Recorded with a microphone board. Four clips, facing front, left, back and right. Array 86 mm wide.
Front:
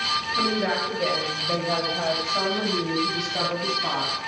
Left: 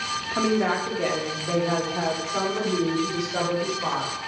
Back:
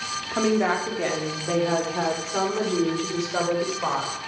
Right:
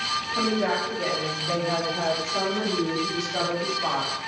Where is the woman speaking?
150° left, 4 m; by 4.1 s 170° left, 7 m.